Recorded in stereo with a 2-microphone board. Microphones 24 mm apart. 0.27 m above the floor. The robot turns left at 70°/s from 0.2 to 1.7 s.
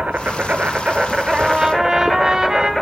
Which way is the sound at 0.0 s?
85° right.